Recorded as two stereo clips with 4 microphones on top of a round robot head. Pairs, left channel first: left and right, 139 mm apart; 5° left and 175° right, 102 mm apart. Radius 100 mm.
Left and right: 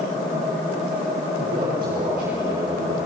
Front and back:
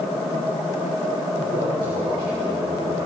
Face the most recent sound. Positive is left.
turn(degrees=-130)